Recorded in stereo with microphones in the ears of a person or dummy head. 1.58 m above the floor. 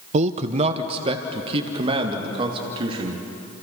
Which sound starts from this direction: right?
A man speaking, at 0.1 s.